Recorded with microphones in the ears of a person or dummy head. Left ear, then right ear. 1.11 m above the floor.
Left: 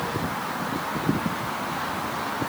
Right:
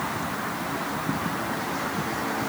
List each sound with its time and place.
Only background noise.